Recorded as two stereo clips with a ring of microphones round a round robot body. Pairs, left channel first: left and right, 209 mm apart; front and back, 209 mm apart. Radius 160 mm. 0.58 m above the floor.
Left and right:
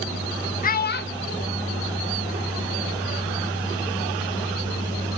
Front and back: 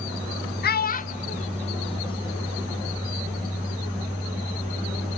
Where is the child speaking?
40° left, 0.6 m; by 2.6 s 70° left, 1.6 m.